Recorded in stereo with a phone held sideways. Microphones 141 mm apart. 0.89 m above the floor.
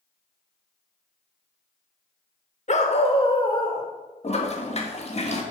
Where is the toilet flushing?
45° left (ahead or behind), 1.4 m.